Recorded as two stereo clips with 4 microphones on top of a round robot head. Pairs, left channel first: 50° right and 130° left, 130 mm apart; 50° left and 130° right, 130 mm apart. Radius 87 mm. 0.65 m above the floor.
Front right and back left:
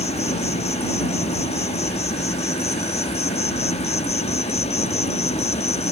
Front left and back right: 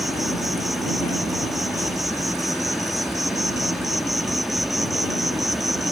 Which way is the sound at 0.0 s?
45° right.